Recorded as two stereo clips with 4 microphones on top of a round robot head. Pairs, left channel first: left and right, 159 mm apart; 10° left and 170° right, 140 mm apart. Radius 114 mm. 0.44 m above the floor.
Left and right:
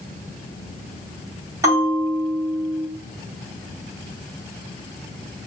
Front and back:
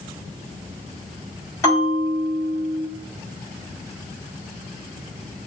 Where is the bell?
35° right, 1.5 m.